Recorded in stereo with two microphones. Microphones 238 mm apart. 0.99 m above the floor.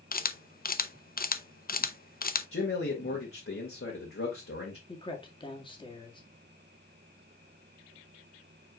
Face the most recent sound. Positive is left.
turn(degrees=20)  # may be behind; listen again after turning